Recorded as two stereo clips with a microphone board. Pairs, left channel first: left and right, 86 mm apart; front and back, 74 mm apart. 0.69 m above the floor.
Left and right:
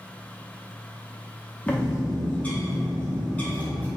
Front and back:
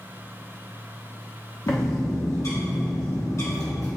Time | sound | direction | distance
1.7 | a bird | 25° left | 0.9 m